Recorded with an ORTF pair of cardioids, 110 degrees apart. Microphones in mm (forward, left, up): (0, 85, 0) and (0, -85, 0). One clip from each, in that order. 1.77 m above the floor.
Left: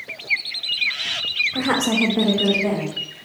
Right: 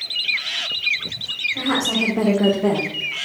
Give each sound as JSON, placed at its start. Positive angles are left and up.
{"t": 1.5, "sound": "a woman speaking", "azimuth_deg": 65, "distance_m": 1.0}